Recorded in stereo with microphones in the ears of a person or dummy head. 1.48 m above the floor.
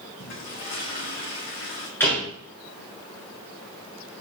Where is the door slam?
15° left (ahead or behind), 3.5 m.